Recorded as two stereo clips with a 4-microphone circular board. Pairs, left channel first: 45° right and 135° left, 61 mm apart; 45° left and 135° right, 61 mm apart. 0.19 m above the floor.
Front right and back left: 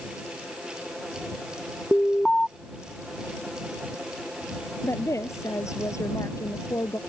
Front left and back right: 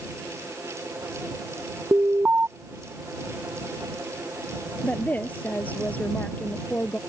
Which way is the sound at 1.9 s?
105° right.